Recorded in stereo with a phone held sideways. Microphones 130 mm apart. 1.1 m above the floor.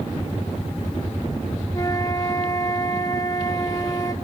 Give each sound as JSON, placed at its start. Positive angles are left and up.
{"t": 1.7, "sound": "a flute", "side_deg": 25, "distance_m": 1.3}